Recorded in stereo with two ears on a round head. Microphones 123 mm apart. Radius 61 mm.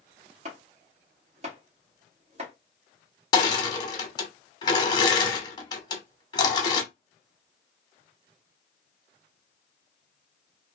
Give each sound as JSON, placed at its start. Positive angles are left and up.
{"t": 0.5, "sound": "chopping", "side_deg": -50, "distance_m": 1.3}
{"t": 3.3, "sound": "crushing", "side_deg": 30, "distance_m": 0.9}